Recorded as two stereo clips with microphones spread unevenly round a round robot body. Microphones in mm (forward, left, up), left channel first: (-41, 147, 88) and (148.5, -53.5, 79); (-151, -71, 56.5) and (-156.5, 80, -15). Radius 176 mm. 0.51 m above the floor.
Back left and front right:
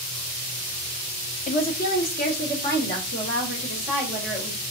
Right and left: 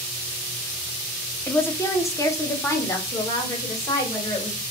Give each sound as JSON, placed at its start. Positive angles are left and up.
{"t": 1.5, "sound": "a woman speaking", "azimuth_deg": 150, "distance_m": 0.8}